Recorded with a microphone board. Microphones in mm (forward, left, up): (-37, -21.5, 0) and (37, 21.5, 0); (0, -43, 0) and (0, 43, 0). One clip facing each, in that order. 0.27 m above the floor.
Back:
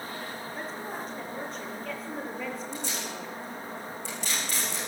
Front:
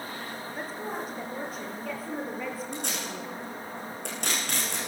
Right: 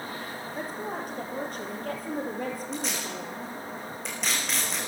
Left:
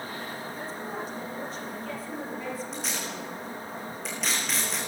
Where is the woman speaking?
55° right, 5.5 m.